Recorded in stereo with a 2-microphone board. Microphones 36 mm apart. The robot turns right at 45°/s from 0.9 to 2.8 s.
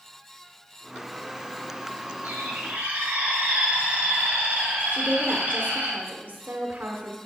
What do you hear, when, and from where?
2.2 s a bird: 90° right, 4.5 m; by 5.9 s 65° right (ahead or behind), 4.5 m
4.9 s a woman speaking: 55° right (ahead or behind), 1.3 m